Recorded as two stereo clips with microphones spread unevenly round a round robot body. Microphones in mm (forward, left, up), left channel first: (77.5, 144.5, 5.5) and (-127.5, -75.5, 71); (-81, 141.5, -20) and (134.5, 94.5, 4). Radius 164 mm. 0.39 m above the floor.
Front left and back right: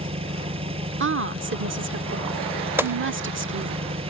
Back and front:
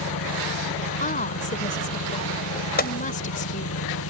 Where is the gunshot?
135° left.